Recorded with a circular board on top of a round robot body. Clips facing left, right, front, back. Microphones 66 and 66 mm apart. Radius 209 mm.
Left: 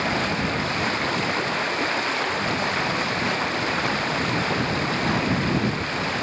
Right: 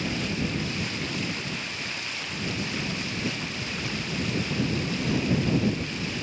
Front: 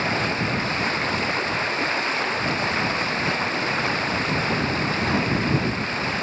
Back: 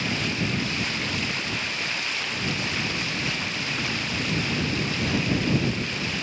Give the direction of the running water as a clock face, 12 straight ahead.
10 o'clock.